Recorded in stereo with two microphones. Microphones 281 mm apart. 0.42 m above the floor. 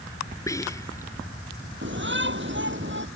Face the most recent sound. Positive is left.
turn(degrees=-40)  # may be behind; listen again after turning